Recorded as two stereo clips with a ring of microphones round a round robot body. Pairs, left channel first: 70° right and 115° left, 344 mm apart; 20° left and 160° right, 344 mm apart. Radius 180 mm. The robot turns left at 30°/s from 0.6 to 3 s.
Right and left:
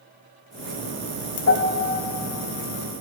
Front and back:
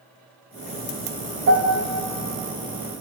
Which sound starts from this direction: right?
A piano, at 1.5 s.